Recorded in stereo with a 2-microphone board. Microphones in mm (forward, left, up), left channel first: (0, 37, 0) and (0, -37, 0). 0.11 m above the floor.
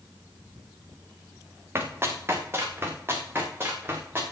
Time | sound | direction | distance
1.8 | running footsteps | 35° right (ahead or behind) | 3 m